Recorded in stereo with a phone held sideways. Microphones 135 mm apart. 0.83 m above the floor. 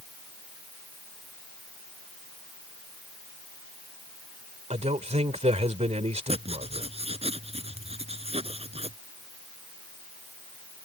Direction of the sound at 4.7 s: 55° right (ahead or behind).